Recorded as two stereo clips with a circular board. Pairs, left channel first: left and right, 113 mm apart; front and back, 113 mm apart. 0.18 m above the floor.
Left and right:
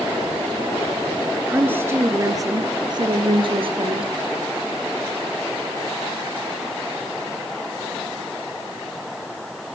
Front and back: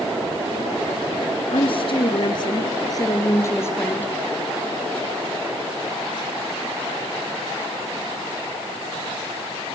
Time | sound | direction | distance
1.5 | a woman speaking | 15° right | 2.5 m